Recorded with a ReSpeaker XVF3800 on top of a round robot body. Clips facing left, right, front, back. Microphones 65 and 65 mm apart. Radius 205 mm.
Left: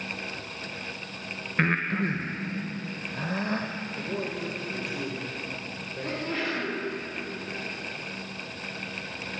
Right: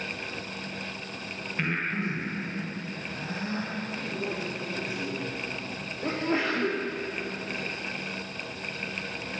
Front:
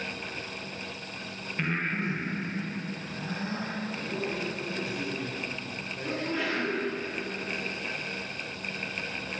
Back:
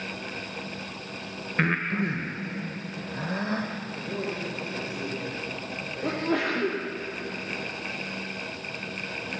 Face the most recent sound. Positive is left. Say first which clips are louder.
# right 4 dB, back 5 dB
turn(degrees=-155)